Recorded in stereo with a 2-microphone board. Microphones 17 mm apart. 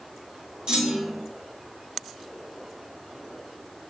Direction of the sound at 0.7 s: 55° right (ahead or behind).